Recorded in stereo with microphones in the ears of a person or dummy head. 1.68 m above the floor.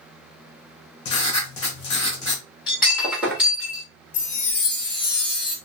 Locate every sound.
1.1 s writing: 30° left (ahead or behind), 1.5 m
2.7 s breaking glass: 10° right (ahead or behind), 1.6 m
4.1 s a chime: 30° left (ahead or behind), 1.3 m